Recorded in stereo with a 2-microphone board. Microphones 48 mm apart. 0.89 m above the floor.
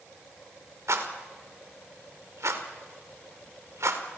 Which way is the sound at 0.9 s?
75° right (ahead or behind).